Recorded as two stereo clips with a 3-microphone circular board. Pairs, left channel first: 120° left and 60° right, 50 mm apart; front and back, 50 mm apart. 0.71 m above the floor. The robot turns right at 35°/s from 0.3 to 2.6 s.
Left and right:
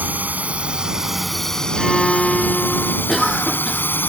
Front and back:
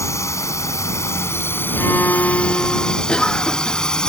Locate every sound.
0.0 s a drone: 5° right; by 4.1 s 75° left
1.8 s a violin: 25° left; by 3.0 s 55° left
3.1 s a cough: 40° left